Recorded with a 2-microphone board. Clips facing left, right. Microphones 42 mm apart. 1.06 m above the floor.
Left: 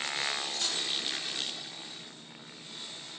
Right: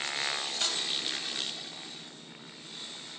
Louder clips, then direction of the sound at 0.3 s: Right 1 dB; 50° right (ahead or behind).